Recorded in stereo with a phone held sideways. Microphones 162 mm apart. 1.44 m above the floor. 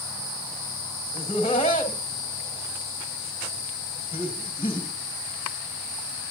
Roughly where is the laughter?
Left.